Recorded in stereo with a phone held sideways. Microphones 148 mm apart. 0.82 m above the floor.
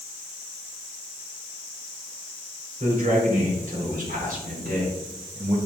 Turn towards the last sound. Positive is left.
turn(degrees=-80)